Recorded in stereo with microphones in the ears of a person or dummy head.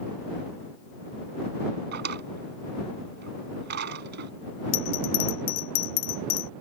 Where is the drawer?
55° right (ahead or behind).